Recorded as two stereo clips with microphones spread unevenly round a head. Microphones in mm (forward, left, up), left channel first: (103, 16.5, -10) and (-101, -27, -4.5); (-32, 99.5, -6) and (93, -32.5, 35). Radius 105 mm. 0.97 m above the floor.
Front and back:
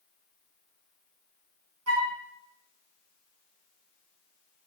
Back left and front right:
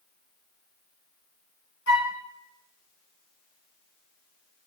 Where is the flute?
175° left, 4.5 m.